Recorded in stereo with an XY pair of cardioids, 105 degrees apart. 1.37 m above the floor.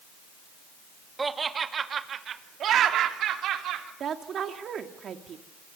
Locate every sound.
1.2 s laughter: 25° right, 1.9 m; by 3.9 s 80° right, 3.5 m
4.0 s a woman speaking: 55° right, 2.5 m